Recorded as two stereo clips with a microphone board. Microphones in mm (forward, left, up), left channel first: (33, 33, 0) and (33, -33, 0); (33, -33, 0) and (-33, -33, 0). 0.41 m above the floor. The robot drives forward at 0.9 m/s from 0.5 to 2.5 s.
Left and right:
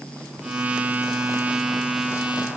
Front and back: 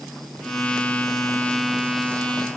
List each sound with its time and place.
Only background noise.